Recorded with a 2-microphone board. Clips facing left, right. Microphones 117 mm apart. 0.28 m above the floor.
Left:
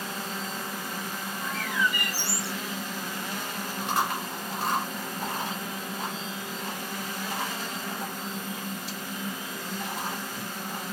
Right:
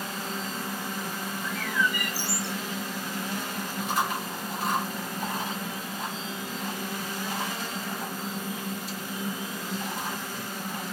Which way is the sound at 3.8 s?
70° left (ahead or behind).